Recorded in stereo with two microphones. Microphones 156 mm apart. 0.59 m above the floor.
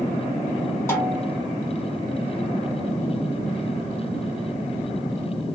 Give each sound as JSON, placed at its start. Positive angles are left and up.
{"t": 0.9, "sound": "a snare drum", "side_deg": 15, "distance_m": 1.0}